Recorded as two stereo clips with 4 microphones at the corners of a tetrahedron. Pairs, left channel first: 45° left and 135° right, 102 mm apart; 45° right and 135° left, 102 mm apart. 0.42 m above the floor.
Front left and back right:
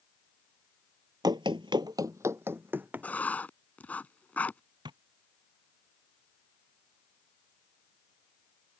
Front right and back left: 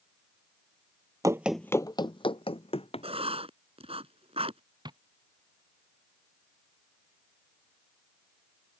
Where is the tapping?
Straight behind.